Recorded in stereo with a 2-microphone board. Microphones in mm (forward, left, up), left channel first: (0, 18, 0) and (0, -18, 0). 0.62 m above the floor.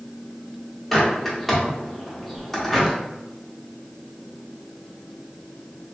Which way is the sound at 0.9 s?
10° left (ahead or behind).